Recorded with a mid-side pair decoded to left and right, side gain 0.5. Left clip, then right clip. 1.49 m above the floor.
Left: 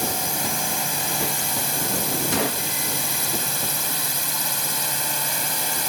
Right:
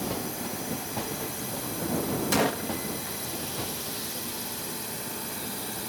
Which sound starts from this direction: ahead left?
A drone, at 0.0 s.